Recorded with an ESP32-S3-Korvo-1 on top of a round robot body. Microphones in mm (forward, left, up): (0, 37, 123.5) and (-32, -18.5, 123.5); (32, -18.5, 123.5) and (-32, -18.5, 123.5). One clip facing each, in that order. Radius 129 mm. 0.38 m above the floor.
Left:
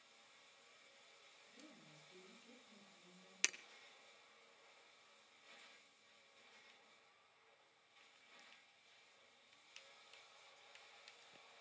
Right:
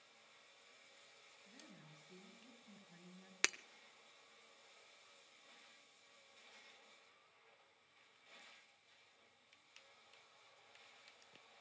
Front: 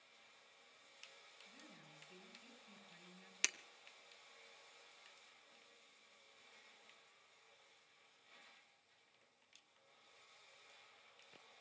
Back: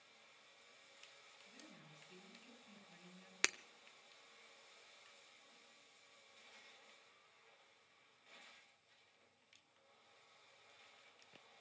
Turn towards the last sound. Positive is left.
turn(degrees=-150)